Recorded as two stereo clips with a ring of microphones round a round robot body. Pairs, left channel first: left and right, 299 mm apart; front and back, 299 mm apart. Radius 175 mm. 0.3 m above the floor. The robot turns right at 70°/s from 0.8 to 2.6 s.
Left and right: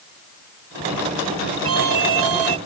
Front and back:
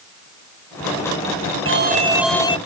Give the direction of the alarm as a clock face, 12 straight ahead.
4 o'clock.